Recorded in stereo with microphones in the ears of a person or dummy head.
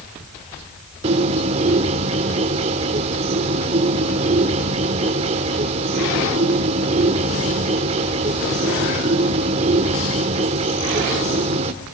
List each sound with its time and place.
1.0 s a bird: 40° right (ahead or behind), 2 m